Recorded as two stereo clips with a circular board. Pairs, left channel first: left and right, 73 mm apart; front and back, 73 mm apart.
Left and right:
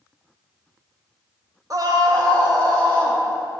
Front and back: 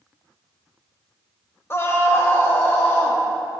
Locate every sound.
1.7 s a scream: 55° right, 0.9 m; by 3.2 s 65° right, 2.5 m